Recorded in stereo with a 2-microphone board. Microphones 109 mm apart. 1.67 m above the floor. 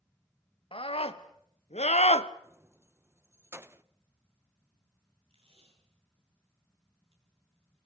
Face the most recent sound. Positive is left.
turn(degrees=-55)  # may be behind; listen again after turning